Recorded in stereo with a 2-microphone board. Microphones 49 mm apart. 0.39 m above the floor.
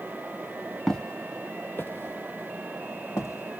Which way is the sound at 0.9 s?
15° left (ahead or behind).